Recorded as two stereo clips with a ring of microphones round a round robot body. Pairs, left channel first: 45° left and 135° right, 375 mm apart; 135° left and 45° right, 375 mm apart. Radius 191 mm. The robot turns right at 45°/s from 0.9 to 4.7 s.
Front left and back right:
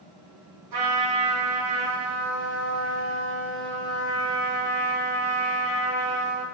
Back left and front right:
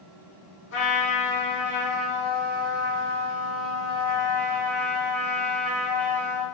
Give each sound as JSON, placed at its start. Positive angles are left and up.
{"t": 0.7, "sound": "a trumpet", "azimuth_deg": -165, "distance_m": 3.0}